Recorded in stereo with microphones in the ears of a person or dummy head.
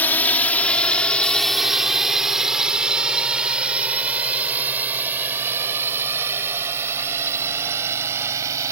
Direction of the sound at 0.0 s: 10° left (ahead or behind).